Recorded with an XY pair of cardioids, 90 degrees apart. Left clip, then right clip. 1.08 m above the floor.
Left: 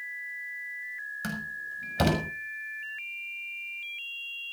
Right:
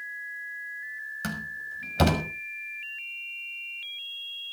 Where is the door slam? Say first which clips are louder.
Right 1 dB; 15° right, 6 m.